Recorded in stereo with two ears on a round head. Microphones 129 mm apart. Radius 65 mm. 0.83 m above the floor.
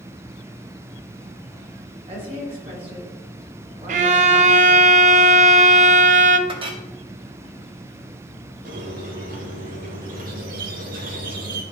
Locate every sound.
2.1 s a woman speaking: 40° right (ahead or behind), 3.5 m
3.9 s a violin: 60° right (ahead or behind), 0.6 m
6.5 s a clink: 40° right (ahead or behind), 1.0 m
8.7 s a squeak: 65° right (ahead or behind), 1.2 m